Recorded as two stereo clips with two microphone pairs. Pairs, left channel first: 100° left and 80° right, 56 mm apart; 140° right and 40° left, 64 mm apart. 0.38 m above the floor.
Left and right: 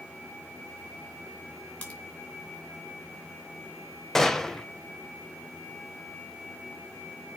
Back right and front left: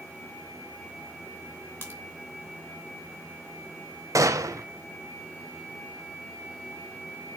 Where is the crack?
160° left, 2.5 m.